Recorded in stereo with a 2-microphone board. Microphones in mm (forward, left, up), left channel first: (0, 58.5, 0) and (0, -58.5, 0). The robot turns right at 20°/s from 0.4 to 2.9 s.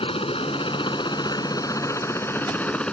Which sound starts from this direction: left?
A helicopter, at 0.0 s.